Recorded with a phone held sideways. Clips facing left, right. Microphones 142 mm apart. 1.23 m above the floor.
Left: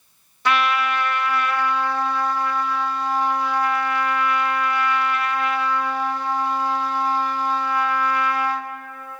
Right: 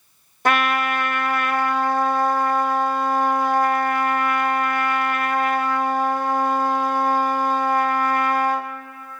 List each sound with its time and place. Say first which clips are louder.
0.5 s a trumpet: right 1 dB; 50° right (ahead or behind), 0.6 m